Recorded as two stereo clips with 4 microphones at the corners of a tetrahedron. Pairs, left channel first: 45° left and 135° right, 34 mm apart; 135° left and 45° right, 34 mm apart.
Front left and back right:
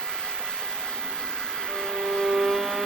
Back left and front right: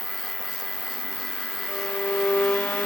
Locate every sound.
0.0 s an insect: 125° right
1.7 s a violin: 145° left